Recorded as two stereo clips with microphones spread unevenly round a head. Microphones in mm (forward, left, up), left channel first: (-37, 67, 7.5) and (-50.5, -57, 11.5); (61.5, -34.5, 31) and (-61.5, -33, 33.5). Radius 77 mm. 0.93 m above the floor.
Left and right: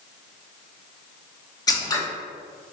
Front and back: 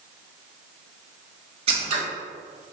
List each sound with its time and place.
1.7 s scissors: 140° left, 0.8 m